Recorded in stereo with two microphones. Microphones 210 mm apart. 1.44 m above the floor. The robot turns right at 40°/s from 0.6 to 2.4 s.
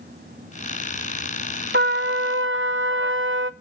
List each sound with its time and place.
1.7 s a trumpet: 55° right (ahead or behind), 0.9 m; by 3.5 s 70° right (ahead or behind), 0.9 m